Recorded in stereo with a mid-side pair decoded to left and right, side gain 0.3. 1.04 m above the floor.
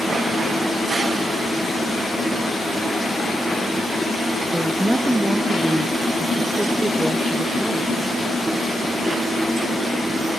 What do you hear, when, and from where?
4.5 s a woman speaking: 15° right, 0.5 m